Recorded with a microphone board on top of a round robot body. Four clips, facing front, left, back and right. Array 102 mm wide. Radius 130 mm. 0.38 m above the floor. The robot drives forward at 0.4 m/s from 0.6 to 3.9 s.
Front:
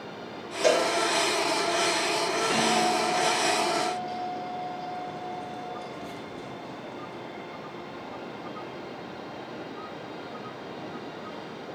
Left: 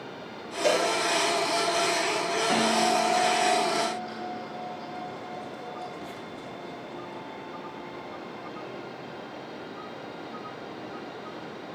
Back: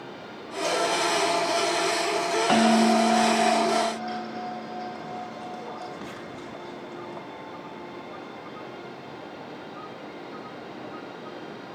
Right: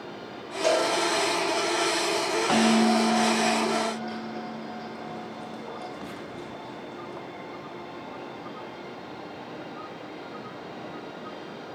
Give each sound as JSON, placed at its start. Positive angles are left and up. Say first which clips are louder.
{"t": 0.6, "sound": "a cowbell", "louder": "right 1 dB, front 4 dB", "azimuth_deg": -10, "distance_m": 9.5}
{"t": 2.5, "sound": "a bell", "louder": "right 3 dB, back 7 dB", "azimuth_deg": -150, "distance_m": 6.5}